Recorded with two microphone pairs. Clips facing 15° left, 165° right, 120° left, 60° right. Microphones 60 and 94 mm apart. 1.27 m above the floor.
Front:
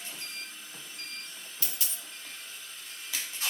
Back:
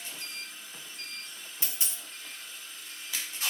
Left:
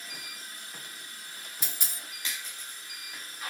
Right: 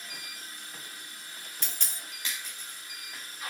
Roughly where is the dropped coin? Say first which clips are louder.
Even, even; behind.